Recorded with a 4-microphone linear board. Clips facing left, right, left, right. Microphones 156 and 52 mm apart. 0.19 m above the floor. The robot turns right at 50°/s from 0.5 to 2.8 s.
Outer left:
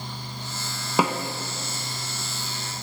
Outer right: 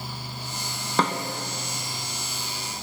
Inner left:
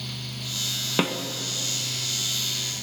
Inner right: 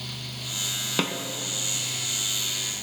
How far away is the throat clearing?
I don't hear throat clearing.